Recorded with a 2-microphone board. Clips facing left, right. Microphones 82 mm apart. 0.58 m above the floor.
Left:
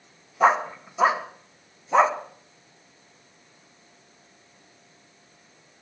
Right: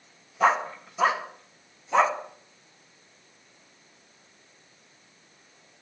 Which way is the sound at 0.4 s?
15° left (ahead or behind).